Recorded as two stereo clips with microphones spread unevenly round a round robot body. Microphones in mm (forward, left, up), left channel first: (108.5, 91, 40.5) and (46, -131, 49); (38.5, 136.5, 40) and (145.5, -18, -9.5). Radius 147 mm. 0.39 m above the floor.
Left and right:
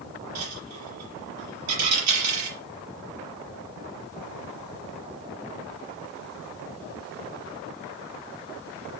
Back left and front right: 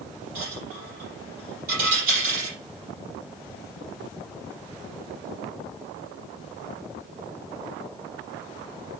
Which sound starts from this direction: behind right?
A dropped coin, at 0.3 s.